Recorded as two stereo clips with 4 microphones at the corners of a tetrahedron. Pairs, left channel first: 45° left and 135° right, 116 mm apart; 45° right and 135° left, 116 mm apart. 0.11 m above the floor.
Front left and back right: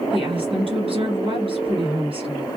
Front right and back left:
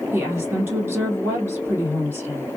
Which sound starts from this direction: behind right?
A woman speaking, at 0.1 s.